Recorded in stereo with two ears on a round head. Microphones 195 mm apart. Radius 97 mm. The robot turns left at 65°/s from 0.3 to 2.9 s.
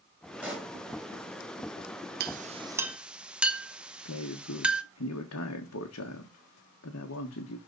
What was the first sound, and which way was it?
A pop, 5° right (ahead or behind).